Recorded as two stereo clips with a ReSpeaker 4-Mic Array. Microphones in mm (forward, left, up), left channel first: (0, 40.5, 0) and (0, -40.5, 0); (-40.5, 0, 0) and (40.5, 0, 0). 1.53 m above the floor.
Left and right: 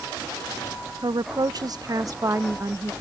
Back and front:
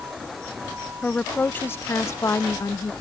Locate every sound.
1.0 s a woman speaking: 100° right; by 2.9 s 140° right